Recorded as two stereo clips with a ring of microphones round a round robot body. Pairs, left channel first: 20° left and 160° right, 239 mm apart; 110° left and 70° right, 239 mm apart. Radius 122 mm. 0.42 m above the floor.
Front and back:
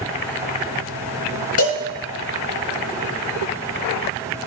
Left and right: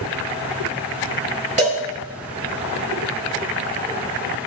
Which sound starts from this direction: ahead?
A cowbell, at 1.6 s.